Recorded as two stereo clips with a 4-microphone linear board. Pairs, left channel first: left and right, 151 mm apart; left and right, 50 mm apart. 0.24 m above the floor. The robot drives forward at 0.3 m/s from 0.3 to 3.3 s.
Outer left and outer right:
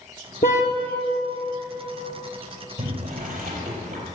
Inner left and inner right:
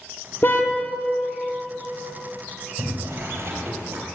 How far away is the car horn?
About 2 m.